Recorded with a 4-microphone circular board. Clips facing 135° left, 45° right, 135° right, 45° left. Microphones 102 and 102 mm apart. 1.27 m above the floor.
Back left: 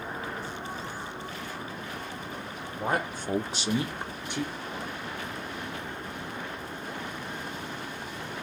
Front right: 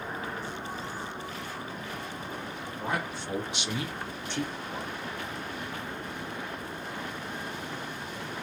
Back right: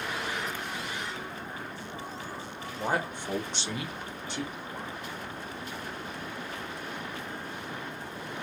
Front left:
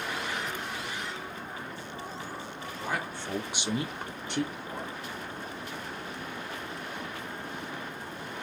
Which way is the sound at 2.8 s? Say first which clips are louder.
Back left 4 dB, back right 4 dB; straight behind.